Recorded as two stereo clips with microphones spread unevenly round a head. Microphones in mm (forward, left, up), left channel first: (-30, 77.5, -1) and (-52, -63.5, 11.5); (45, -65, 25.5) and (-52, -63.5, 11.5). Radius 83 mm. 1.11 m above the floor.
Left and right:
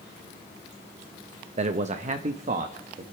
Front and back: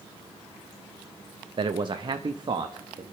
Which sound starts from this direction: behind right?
A man speaking, at 1.6 s.